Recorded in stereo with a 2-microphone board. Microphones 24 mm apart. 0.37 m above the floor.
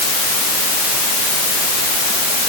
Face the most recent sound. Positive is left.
No sound to turn to.